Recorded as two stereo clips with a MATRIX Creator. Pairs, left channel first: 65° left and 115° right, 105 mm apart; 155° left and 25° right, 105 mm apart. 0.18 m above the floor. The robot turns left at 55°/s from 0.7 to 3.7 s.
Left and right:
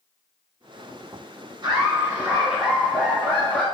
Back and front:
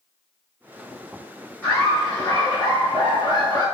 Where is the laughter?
135° right, 1.5 m; by 3.6 s 110° left, 1.5 m.